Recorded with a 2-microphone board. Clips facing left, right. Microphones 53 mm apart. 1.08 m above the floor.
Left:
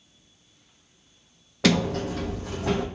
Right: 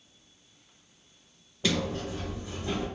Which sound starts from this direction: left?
A sliding door, at 1.6 s.